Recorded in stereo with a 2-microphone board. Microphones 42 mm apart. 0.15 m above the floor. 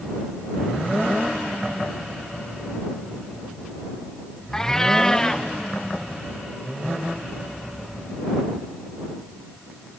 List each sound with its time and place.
4.5 s a cat meowing: 15° left (ahead or behind)